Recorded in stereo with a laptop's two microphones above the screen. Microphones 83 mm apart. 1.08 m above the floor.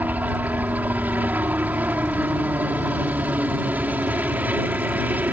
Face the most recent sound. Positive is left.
turn(degrees=-20)  # may be behind; listen again after turning